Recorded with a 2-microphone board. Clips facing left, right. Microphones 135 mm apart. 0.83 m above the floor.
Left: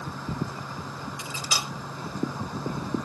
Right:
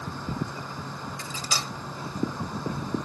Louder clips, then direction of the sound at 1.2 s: Even; 10° left (ahead or behind).